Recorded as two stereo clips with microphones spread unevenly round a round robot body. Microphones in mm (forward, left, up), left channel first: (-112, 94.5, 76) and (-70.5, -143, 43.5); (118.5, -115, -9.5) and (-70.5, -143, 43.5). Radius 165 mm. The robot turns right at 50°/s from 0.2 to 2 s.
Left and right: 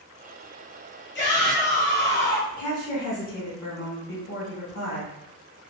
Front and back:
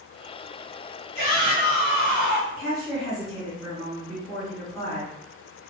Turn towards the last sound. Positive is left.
turn(degrees=70)